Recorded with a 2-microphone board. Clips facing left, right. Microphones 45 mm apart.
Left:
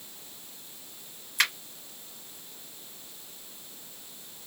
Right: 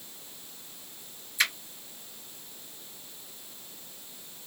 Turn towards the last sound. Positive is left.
turn(degrees=60)  # may be behind; listen again after turning